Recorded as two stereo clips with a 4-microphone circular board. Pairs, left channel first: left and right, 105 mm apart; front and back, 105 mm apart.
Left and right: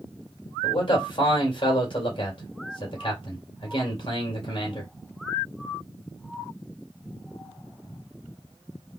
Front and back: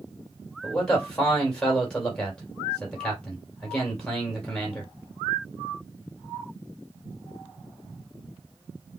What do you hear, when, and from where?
0.6 s a man speaking: 80° left, 2 m